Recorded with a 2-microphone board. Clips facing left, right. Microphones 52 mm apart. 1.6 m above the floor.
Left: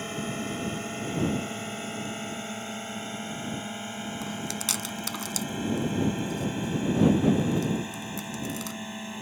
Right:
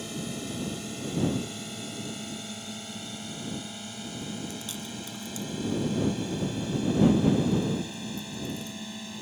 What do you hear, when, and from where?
0.0 s a drone: 35° left (ahead or behind); by 9.2 s 25° left (ahead or behind)
4.2 s chewing: 85° left